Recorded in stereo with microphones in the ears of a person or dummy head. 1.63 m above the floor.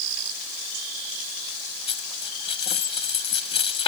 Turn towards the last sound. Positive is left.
turn(degrees=30)  # may be behind; listen again after turning